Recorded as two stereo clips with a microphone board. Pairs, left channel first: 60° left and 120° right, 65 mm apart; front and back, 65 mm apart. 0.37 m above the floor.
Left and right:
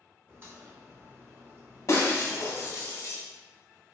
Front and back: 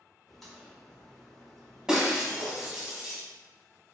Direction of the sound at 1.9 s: 100° left.